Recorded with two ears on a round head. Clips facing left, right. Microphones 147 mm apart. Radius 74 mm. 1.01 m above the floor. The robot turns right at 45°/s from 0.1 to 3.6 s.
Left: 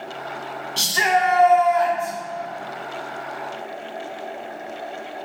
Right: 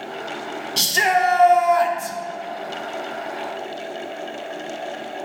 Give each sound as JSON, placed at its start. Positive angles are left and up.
{"t": 0.8, "sound": "a shout", "azimuth_deg": -160, "distance_m": 1.0}